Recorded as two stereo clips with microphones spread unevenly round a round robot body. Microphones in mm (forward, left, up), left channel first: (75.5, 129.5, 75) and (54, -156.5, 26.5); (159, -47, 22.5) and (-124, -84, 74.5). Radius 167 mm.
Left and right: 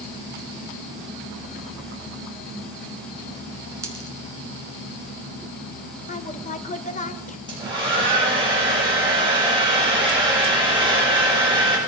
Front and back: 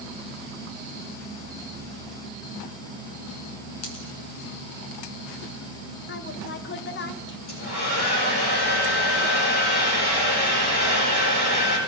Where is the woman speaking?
20° left, 1.1 m.